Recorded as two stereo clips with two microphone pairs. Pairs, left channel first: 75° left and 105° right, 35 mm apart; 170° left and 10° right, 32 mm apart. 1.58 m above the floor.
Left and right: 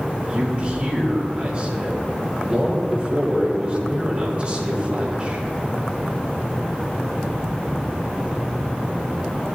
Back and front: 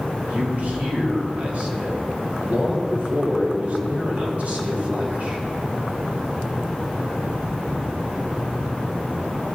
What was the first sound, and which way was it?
A man speaking, 50° right.